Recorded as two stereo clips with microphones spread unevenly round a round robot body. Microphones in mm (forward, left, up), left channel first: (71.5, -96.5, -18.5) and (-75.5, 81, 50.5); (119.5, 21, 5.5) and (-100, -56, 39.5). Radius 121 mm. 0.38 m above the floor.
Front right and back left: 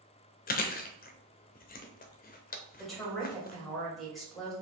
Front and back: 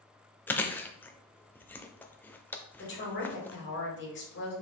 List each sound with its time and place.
0.5 s chewing: 55° right, 0.6 m
2.8 s a woman speaking: 25° left, 1.8 m